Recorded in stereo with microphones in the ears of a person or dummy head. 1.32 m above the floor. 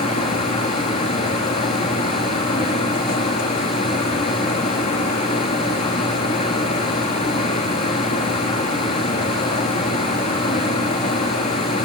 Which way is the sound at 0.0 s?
35° left (ahead or behind).